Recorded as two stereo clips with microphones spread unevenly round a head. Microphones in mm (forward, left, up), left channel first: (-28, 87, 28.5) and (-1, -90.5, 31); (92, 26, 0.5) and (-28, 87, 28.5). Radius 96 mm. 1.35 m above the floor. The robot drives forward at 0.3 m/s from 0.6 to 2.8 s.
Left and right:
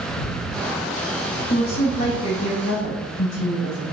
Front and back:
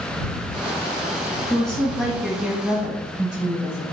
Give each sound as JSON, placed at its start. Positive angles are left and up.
{"t": 1.5, "sound": "a woman speaking", "azimuth_deg": 50, "distance_m": 1.3}